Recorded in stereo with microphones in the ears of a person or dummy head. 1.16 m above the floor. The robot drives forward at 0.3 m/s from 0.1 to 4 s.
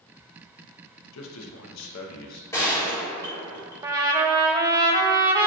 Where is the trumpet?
20° right (ahead or behind), 0.6 m.